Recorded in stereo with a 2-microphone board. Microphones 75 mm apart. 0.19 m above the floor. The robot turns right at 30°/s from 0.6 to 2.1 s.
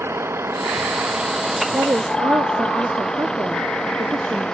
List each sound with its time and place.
0.0 s a vehicle: 35° right; by 4.5 s 10° left
1.7 s a woman speaking: 35° right (ahead or behind); by 4.5 s 45° right (ahead or behind)